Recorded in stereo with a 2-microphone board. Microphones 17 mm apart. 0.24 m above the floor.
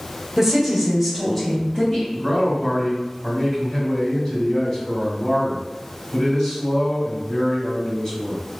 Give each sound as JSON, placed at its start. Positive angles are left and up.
{"t": 0.4, "sound": "a woman speaking", "side_deg": -25, "distance_m": 1.0}
{"t": 2.1, "sound": "a man speaking", "side_deg": 30, "distance_m": 1.8}